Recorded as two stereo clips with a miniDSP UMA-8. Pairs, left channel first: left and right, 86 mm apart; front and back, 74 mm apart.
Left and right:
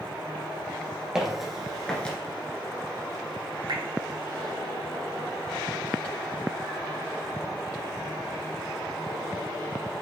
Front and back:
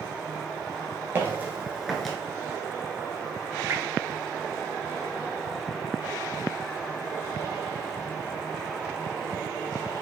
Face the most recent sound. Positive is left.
turn(degrees=-125)